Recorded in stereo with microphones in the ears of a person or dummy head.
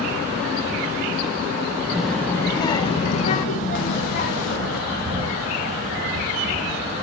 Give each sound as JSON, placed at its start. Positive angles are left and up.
{"t": 1.9, "sound": "a child speaking", "side_deg": -5, "distance_m": 0.7}
{"t": 4.9, "sound": "a bird", "side_deg": -30, "distance_m": 2.5}